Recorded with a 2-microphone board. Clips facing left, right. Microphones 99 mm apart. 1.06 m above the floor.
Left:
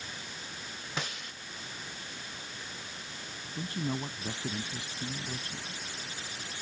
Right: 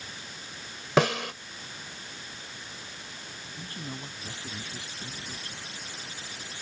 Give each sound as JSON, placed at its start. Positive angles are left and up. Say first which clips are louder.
{"t": 1.0, "sound": "a snare drum", "louder": "right 17 dB", "side_deg": -90}
{"t": 3.5, "sound": "a man speaking", "louder": "left 7 dB", "side_deg": 25}